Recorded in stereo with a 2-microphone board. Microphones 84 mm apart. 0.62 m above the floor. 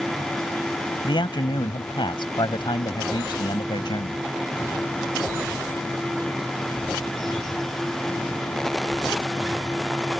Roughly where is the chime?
No chime in this recording.